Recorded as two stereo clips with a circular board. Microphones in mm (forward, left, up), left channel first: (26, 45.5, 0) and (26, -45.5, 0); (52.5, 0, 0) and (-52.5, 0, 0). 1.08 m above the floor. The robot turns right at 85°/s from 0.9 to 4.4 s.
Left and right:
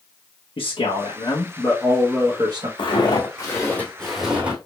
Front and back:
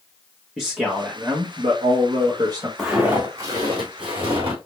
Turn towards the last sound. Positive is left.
turn(degrees=-170)